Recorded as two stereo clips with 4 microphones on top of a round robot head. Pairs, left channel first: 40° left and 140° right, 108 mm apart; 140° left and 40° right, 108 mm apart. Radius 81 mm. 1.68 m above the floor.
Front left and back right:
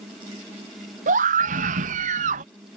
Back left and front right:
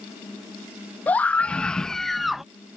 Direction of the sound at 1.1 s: 145° right.